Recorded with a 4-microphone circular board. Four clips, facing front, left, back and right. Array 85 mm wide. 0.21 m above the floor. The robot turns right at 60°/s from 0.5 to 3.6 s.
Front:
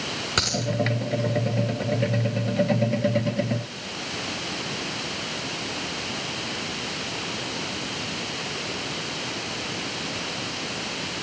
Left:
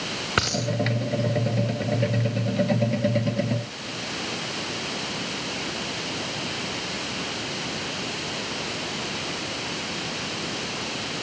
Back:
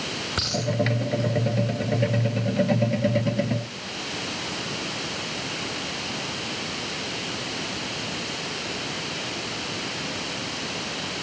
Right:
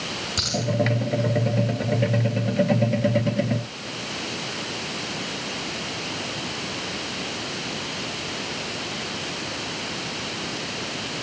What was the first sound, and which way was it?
A dropped coin, 75° left.